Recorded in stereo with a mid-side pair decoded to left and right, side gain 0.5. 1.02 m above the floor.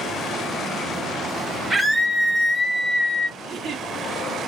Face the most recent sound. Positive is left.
turn(degrees=-50)